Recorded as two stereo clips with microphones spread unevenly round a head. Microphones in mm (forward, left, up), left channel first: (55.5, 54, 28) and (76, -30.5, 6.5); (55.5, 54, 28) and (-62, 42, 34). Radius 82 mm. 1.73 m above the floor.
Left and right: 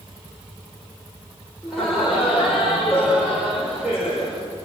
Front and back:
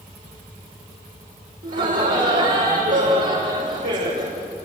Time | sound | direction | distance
1.6 | laughter | 170° right | 5.5 m